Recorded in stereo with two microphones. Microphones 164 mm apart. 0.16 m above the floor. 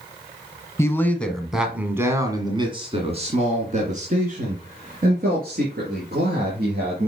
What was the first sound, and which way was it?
A man speaking, 15° left (ahead or behind).